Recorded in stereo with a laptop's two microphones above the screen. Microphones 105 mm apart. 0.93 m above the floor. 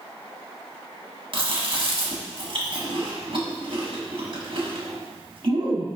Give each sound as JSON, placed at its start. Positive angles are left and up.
{"t": 1.3, "sound": "chewing", "side_deg": -55, "distance_m": 1.3}